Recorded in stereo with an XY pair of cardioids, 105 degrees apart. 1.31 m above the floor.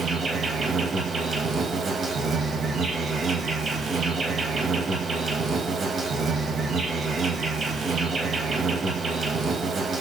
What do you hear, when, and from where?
0.0 s an insect: 40° right, 1.1 m